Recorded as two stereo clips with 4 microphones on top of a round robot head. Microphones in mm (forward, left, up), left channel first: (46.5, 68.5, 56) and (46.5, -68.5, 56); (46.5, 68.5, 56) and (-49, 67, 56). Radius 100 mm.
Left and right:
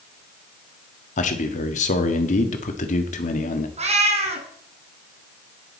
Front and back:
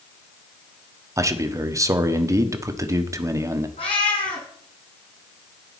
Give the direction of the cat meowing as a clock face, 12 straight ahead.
2 o'clock.